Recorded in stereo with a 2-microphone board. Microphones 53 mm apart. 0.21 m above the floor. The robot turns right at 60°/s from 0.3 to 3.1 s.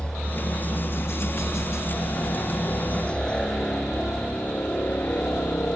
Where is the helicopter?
15° left (ahead or behind); by 5.8 s 50° left (ahead or behind).